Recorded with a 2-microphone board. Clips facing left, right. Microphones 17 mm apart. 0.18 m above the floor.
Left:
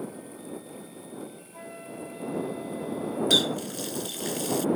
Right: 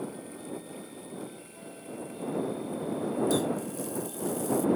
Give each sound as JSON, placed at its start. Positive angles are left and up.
{"t": 1.5, "sound": "a flute", "side_deg": 50}
{"t": 3.3, "sound": "a running tap", "side_deg": 60}